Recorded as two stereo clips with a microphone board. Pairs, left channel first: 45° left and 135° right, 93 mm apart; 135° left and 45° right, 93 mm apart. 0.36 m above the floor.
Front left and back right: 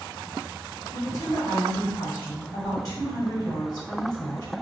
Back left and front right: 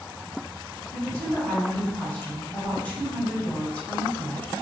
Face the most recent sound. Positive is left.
turn(degrees=70)